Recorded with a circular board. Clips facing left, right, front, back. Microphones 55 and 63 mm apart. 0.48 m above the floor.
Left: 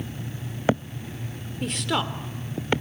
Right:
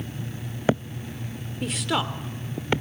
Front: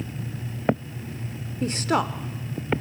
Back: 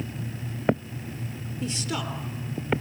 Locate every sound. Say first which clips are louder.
1.6 s a woman speaking: even, front 8 dB; 5° right, 1.3 m